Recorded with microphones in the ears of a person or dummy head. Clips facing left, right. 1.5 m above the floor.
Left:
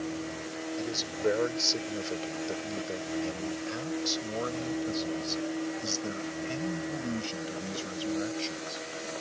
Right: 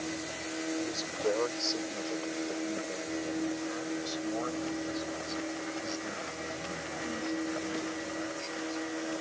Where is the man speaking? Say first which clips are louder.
Left 2 dB; 15° left (ahead or behind); by 8.8 s 55° left (ahead or behind).